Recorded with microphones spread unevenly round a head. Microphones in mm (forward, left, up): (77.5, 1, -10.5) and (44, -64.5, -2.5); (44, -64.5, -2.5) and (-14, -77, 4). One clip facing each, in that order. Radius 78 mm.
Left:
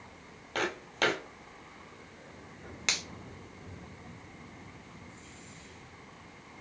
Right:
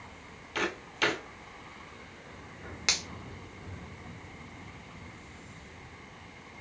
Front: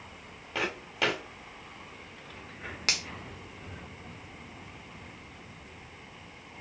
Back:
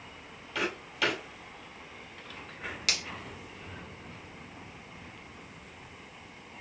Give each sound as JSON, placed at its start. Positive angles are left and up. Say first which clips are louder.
{"t": 0.6, "sound": "footsteps", "louder": "even, even", "azimuth_deg": 65, "distance_m": 2.0}
{"t": 2.9, "sound": "a finger snap", "louder": "right 1 dB, front 2 dB", "azimuth_deg": -40, "distance_m": 1.3}